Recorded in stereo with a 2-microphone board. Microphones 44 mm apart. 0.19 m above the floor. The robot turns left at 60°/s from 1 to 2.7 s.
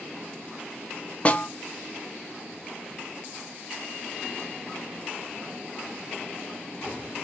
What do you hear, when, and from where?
1.2 s a snare drum: 30° left (ahead or behind), 0.6 m; by 1.5 s 35° left (ahead or behind), 0.6 m